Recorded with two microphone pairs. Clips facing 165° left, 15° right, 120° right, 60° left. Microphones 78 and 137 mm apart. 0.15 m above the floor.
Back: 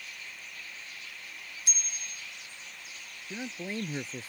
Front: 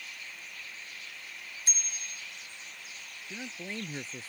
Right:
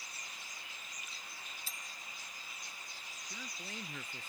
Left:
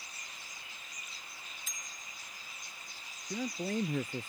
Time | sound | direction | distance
1.7 | a bicycle bell | 65° right | ?
3.3 | a man speaking | 90° left | ?